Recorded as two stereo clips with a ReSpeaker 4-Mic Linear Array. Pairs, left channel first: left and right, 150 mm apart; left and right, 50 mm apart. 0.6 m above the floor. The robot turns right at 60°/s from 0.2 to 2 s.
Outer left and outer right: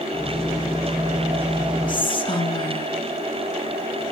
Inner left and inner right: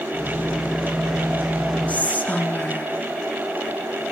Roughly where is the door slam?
No door slam in this recording.